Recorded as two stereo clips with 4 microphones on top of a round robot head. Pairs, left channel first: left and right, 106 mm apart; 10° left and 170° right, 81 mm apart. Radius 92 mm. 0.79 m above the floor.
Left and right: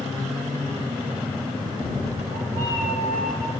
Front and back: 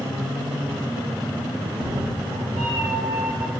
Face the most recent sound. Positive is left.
turn(degrees=-150)